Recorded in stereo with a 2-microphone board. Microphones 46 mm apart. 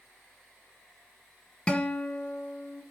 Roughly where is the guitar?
Left.